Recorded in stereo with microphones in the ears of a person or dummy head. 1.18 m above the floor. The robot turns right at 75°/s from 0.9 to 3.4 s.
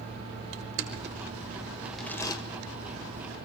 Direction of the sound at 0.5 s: 65° right (ahead or behind).